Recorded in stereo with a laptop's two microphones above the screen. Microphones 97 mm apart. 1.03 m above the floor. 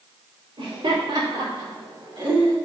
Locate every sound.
0.6 s laughter: 80° right, 3 m; by 2.6 s 40° right (ahead or behind), 1.4 m